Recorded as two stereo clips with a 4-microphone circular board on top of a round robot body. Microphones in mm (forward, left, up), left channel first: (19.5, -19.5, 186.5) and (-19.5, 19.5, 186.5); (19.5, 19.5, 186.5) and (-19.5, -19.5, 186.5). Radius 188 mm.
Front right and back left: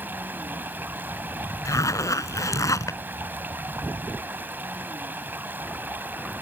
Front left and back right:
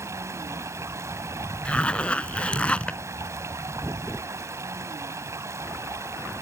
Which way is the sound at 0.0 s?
170° right.